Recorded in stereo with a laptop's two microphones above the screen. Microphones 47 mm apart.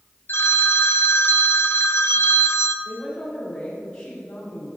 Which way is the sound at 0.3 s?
50° left (ahead or behind).